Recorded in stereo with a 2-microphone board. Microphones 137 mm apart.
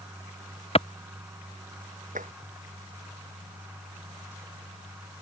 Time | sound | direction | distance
0.8 | a clap | 45° left (ahead or behind) | ?
2.1 | tapping | 75° right (ahead or behind) | ?